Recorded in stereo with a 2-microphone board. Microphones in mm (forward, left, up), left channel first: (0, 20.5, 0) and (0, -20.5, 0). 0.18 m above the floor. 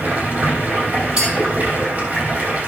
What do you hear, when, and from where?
0.0 s running water: 35° right (ahead or behind), 3 m
1.2 s a clink: 15° right (ahead or behind), 4.5 m